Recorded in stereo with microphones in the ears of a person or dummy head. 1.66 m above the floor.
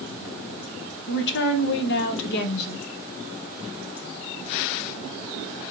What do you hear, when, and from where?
1.1 s a woman speaking: 65° left (ahead or behind), 0.9 m